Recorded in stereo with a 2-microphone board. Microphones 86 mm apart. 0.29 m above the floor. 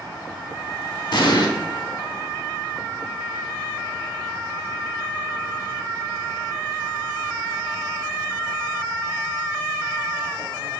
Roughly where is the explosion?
Left.